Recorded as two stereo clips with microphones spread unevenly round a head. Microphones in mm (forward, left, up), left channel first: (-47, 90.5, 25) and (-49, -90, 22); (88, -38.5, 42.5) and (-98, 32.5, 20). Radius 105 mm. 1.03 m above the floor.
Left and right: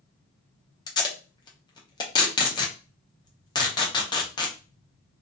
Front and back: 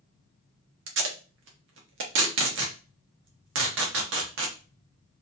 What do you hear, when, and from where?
0.9 s tape being pulled: 145° left, 0.6 m